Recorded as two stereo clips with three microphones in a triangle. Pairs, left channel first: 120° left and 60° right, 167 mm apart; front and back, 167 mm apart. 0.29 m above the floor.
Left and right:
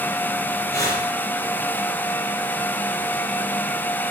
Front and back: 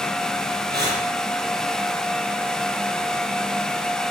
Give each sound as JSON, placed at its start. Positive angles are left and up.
{"t": 0.7, "sound": "breathing", "azimuth_deg": -170, "distance_m": 5.0}